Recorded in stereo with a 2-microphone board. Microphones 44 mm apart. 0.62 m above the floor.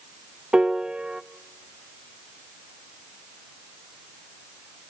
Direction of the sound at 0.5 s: 20° right (ahead or behind).